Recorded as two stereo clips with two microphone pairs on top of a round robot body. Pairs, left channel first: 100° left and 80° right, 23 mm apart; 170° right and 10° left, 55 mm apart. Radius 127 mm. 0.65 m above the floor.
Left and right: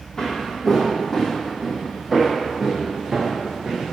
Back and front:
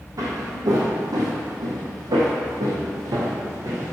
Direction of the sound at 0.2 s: 35° left.